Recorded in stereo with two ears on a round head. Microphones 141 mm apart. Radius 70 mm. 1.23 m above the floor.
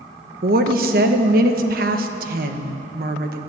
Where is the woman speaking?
60° right (ahead or behind), 1.2 m.